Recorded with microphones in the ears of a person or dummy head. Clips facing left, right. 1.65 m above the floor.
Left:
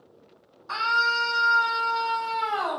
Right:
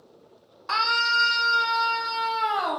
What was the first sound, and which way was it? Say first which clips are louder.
A scream: even; 85° right.